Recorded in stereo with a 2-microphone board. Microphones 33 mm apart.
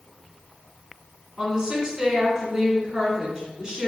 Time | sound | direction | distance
1.4 | a woman speaking | 20° right (ahead or behind) | 1.2 m